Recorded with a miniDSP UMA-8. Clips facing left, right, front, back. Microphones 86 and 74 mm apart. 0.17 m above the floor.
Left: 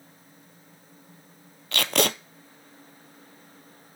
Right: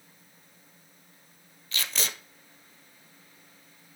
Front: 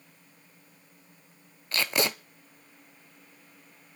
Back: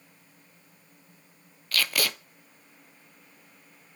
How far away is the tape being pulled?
About 0.8 m.